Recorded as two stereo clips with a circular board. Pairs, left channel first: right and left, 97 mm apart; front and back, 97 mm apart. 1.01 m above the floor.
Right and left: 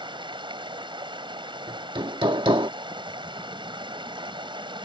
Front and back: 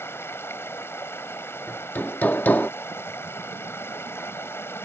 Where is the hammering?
70° left.